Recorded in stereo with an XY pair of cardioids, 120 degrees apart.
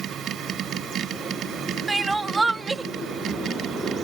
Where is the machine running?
55° right.